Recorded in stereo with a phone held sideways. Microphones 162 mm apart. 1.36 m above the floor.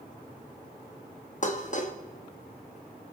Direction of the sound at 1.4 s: 50° left (ahead or behind).